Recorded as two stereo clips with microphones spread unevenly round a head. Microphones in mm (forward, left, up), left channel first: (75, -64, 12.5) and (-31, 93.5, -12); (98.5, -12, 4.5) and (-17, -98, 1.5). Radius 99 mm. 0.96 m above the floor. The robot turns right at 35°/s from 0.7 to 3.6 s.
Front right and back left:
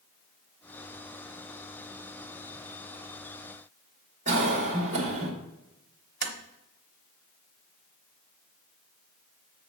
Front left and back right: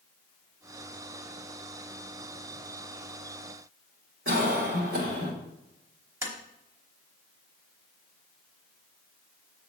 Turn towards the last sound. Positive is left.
turn(degrees=150)